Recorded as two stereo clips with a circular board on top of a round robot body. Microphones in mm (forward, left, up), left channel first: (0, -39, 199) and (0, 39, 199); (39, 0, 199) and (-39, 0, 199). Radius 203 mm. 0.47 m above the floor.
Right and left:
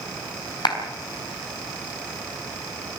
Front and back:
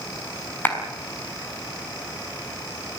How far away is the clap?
About 5 m.